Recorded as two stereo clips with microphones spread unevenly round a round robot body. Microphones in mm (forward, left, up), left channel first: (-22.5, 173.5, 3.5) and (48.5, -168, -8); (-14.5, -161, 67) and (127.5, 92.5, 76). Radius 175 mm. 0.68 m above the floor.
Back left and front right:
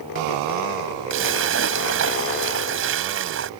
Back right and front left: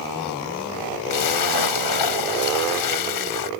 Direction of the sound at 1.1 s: 135° right.